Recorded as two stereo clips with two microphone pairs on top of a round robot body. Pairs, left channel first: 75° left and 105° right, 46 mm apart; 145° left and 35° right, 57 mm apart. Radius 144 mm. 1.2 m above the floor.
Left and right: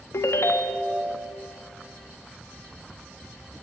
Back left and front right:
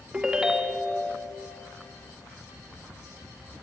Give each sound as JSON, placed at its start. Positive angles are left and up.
{"t": 0.1, "sound": "a ringtone", "azimuth_deg": 45, "distance_m": 1.2}